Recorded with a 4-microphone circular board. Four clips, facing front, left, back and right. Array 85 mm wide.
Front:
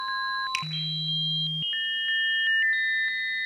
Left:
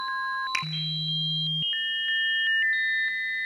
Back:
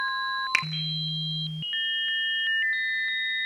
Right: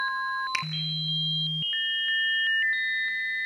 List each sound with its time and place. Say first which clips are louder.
0.5 s a finger snap: even, back 5 dB; 175° left, 1.8 m